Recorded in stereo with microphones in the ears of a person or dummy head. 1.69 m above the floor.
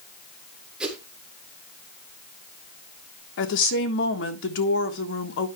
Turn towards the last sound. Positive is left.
turn(degrees=65)  # may be behind; listen again after turning